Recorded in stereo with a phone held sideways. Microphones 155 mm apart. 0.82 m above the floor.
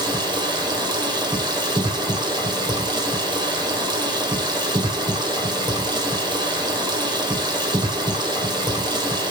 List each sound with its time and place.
0.0 s running water: 25° right (ahead or behind), 3.5 m